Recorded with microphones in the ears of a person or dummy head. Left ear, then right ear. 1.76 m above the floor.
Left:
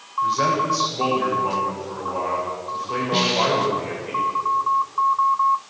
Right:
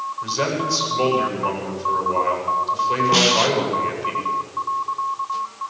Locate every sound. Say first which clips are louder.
0.2 s a man speaking: left 5 dB; 90° right, 8 m
3.1 s a snare drum: right 1 dB; 50° right (ahead or behind), 1.5 m